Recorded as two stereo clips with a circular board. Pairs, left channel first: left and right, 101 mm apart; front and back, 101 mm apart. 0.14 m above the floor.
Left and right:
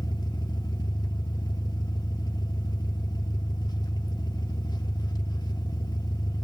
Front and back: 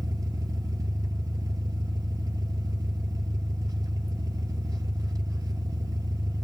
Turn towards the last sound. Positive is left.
turn(degrees=130)